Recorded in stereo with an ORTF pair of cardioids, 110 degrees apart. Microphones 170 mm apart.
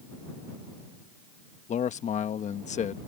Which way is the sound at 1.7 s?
45° left.